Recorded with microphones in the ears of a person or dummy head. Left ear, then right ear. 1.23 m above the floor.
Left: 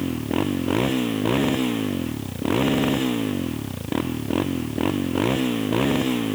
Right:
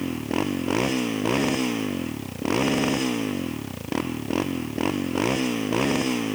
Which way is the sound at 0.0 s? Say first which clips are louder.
Left 2 dB; 25° right (ahead or behind).